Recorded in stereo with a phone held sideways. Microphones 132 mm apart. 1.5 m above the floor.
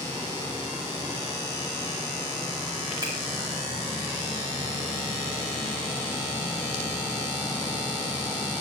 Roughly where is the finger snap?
Right.